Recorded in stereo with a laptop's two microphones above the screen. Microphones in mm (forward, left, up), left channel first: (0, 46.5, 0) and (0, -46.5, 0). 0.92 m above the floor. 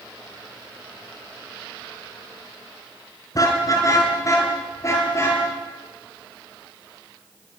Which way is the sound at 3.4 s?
40° left (ahead or behind).